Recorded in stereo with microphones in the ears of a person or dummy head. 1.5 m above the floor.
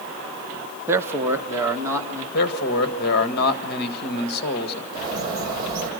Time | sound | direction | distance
0.9 | a man speaking | 15° right (ahead or behind) | 0.8 m
2.3 | a man speaking | 55° left (ahead or behind) | 1.7 m
4.9 | a bird | 25° right (ahead or behind) | 3.5 m